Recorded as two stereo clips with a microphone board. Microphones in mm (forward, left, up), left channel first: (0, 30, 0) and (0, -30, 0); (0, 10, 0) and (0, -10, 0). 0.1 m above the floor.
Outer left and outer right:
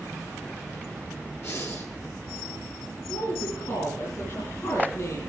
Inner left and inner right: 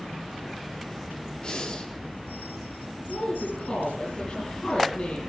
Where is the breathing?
50° left (ahead or behind), 1.9 m.